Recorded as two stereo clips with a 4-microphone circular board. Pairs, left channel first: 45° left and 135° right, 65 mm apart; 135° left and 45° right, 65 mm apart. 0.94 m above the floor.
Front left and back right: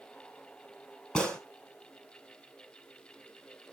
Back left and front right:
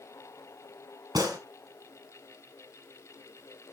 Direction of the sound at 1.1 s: 30° right.